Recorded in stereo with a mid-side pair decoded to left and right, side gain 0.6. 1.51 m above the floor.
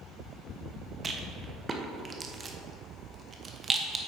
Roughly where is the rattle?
Ahead right.